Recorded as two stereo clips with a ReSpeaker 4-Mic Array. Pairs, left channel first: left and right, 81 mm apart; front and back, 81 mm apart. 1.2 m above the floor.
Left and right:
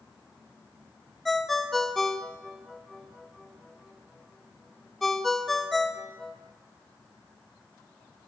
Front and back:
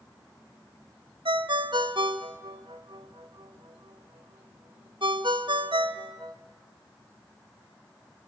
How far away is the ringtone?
About 1.1 m.